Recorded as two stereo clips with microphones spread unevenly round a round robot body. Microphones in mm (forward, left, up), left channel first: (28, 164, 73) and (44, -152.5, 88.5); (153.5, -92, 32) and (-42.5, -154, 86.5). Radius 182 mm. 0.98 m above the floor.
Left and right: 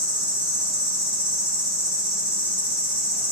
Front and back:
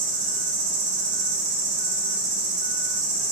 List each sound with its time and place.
0.0 s an insect: 165° right, 0.8 m